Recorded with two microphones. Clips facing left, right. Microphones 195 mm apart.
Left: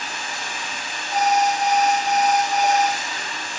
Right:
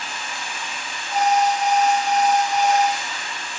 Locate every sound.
0.0 s running water: 40° left (ahead or behind), 1.8 m
1.1 s an alarm: 5° left (ahead or behind), 4 m